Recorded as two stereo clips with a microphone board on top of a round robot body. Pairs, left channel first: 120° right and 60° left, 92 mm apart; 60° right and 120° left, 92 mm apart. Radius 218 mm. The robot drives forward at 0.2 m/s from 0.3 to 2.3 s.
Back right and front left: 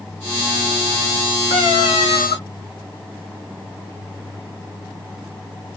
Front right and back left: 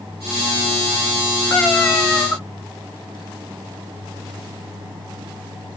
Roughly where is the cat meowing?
Behind right.